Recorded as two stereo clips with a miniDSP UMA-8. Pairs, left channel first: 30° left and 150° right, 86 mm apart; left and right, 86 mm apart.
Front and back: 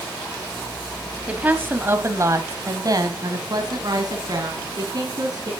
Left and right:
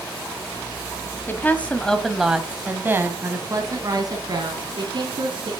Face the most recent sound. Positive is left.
turn(degrees=-110)